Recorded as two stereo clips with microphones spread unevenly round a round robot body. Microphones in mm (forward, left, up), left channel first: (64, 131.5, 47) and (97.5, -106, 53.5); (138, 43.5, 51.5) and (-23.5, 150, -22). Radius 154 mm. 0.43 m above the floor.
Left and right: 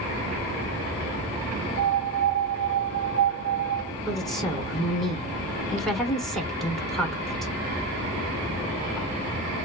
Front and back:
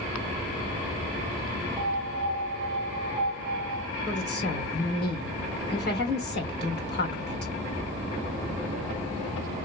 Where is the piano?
100° left, 1.7 m.